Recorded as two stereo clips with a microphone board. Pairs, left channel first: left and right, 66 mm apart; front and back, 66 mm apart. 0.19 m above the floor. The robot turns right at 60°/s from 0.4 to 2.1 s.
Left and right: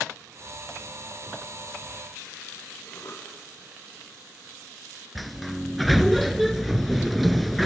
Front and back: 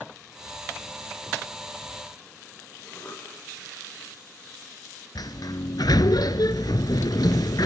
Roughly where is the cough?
Ahead left.